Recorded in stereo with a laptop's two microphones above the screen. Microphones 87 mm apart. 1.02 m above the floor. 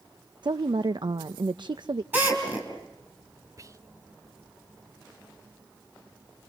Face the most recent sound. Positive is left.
turn(degrees=-40)  # may be behind; listen again after turning